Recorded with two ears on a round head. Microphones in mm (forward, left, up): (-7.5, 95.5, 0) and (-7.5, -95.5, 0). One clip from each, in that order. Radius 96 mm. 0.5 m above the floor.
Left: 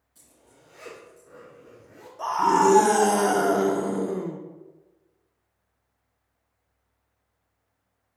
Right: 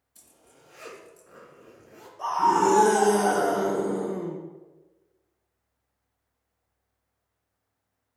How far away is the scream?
About 0.9 m.